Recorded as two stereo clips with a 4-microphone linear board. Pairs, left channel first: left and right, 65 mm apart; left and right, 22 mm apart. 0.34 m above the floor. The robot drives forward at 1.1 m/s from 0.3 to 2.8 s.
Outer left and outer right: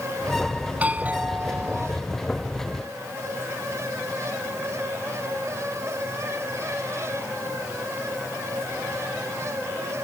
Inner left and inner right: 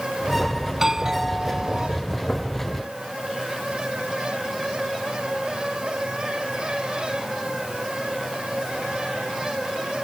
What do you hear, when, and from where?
0.7 s a doorbell: 25° right (ahead or behind); by 1.9 s 30° right (ahead or behind)